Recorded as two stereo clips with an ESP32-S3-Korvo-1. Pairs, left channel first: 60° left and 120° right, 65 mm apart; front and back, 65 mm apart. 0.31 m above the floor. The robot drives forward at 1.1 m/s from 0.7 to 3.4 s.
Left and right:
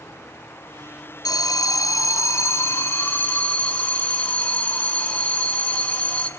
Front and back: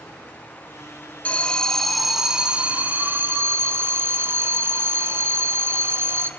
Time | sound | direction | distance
1.2 | an alarm | 70° left | 2.5 m